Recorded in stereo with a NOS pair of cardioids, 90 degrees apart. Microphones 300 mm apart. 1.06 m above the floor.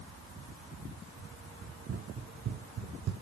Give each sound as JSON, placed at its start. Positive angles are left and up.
{"t": 1.6, "sound": "running footsteps", "azimuth_deg": -45, "distance_m": 4.5}